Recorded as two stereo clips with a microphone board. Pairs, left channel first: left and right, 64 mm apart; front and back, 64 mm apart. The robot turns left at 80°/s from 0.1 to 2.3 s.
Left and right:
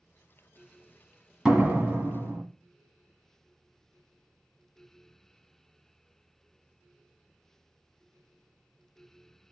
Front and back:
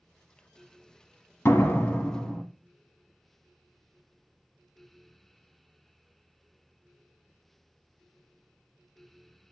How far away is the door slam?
About 1.5 m.